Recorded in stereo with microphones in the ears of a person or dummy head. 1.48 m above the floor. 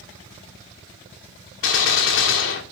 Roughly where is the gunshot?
Left.